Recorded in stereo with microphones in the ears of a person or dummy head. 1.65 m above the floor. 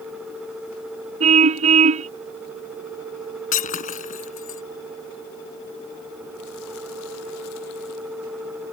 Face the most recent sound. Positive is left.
turn(degrees=45)  # may be behind; listen again after turning